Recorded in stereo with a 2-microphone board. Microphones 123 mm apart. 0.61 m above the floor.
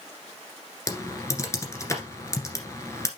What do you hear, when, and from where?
0.9 s typing on a keyboard: 25° left (ahead or behind), 1.7 m